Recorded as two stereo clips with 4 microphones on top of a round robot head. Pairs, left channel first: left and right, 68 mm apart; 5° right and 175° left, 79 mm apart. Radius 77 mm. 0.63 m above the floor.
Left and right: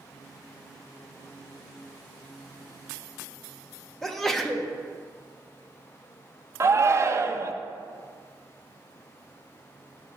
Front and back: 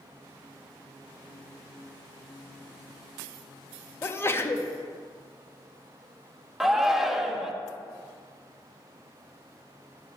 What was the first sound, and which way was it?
A sneeze, 10° left.